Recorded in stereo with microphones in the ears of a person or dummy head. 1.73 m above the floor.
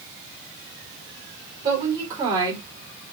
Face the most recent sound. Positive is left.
turn(degrees=-15)  # may be behind; listen again after turning